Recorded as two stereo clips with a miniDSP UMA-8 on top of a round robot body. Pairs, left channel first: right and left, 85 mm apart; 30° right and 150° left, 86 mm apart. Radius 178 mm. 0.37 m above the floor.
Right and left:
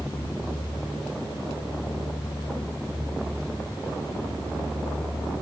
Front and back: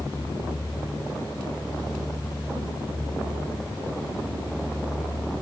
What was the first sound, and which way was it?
Only background noise.